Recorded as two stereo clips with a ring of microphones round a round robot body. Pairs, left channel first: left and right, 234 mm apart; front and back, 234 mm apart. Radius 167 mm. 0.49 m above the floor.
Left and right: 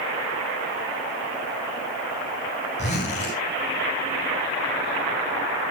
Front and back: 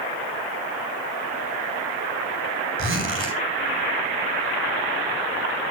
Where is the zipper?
155° left, 2.5 m.